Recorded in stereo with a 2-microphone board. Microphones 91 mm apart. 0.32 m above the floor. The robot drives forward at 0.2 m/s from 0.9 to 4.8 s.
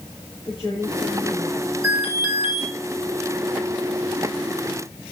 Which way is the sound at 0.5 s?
40° left (ahead or behind).